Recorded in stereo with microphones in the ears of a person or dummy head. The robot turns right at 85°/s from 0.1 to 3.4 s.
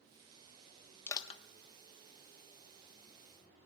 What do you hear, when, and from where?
1.1 s crushing: 10° left (ahead or behind), 1.2 m; by 1.4 s 35° left (ahead or behind), 1.2 m